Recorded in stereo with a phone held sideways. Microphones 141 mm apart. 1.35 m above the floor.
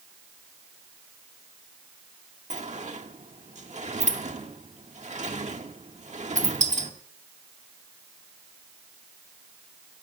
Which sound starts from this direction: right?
A sliding door, at 2.5 s.